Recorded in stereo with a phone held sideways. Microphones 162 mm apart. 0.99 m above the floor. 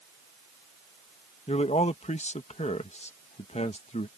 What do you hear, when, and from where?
1.5 s a man speaking: 45° left (ahead or behind)